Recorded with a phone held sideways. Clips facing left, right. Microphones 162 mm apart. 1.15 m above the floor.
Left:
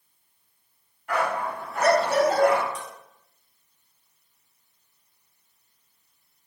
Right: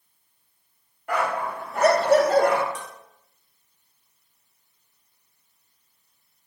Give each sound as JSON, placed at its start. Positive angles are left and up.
{"t": 1.1, "sound": "a dog barking", "side_deg": -50, "distance_m": 2.5}
{"t": 2.8, "sound": "dishes clattering", "side_deg": -75, "distance_m": 1.4}